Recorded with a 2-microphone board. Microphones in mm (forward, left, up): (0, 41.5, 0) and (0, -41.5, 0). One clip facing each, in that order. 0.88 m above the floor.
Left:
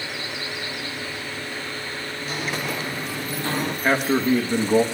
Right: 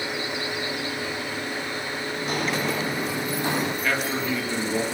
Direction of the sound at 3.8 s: 35° left (ahead or behind).